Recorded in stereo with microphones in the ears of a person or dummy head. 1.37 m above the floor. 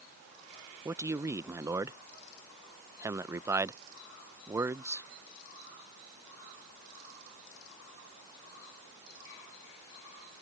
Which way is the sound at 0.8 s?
15° right (ahead or behind).